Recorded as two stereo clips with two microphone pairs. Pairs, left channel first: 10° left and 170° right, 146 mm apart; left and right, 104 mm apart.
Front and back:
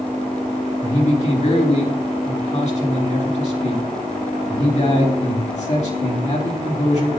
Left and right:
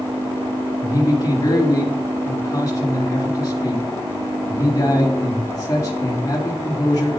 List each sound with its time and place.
0.8 s a man speaking: 40° left, 3.5 m